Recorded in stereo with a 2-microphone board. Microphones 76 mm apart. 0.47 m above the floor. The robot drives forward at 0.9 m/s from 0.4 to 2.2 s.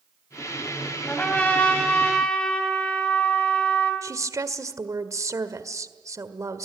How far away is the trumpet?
About 3 m.